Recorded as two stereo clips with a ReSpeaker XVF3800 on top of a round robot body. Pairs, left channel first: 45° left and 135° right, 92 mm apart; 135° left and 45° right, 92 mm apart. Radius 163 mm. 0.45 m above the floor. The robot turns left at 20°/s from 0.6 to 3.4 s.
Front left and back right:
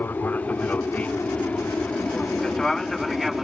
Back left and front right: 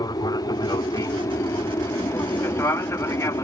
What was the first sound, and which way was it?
An aircraft, 110° left.